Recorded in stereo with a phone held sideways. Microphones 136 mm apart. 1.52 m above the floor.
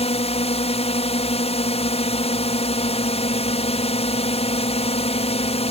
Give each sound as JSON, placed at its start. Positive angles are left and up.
{"t": 0.0, "sound": "a drone", "side_deg": 50}